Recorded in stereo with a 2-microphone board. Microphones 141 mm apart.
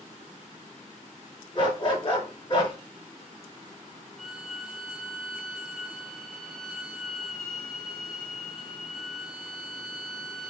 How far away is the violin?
About 0.6 m.